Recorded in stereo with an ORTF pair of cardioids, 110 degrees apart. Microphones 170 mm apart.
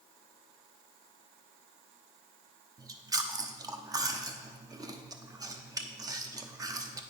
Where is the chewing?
20° right, 0.8 m.